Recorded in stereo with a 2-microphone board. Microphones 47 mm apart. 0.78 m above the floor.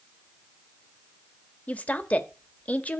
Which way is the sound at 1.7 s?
35° left (ahead or behind).